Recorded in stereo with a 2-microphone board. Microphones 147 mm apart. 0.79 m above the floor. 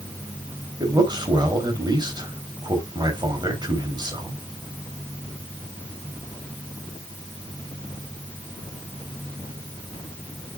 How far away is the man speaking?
About 3.5 m.